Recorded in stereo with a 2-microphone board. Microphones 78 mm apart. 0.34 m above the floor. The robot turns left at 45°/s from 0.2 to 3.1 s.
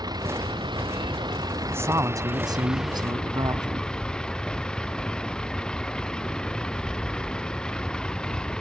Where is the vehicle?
60° right; by 8.6 s 170° left.